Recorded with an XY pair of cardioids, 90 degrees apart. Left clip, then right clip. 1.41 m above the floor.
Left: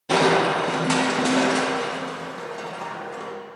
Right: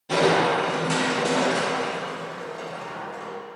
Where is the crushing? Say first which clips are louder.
Left 1 dB; 60° left, 1.3 m.